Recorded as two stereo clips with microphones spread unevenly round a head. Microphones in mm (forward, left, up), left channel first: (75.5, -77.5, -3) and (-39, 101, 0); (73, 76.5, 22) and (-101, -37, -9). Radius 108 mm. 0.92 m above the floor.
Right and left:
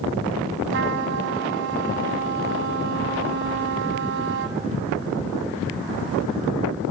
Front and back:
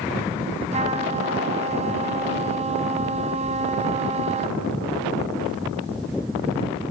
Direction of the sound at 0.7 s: 150° left.